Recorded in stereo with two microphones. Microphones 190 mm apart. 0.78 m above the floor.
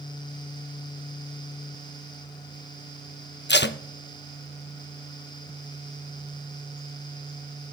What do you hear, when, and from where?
3.5 s tape being pulled: 65° left (ahead or behind), 0.6 m